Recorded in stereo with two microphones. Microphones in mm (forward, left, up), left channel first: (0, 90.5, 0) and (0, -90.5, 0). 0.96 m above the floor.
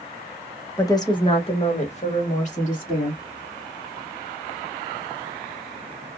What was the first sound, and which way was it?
A woman speaking, 15° left (ahead or behind).